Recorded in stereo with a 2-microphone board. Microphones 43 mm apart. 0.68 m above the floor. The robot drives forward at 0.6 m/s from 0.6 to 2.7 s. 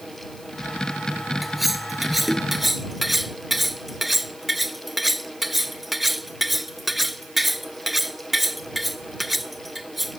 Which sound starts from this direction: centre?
Cutlery clinking, at 1.4 s.